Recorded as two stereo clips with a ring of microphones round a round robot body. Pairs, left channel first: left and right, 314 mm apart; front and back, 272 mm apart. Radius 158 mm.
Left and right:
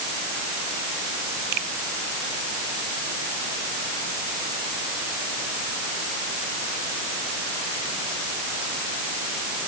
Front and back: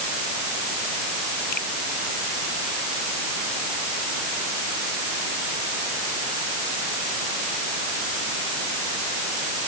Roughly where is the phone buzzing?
No phone buzzing in this recording.